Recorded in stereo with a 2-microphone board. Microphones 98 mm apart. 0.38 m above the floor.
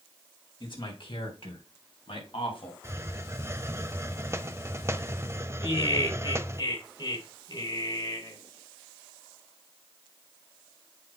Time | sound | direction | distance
0.6 | a man speaking | 55° left (ahead or behind) | 3.5 m
2.8 | a hiss | 30° right (ahead or behind) | 0.6 m
5.6 | laughter | 50° left (ahead or behind) | 3.5 m